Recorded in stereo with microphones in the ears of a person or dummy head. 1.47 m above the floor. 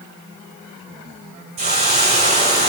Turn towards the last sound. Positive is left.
turn(degrees=-35)  # may be behind; listen again after turning